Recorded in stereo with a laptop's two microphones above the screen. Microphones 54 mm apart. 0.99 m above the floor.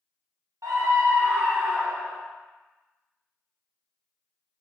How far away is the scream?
About 1.2 m.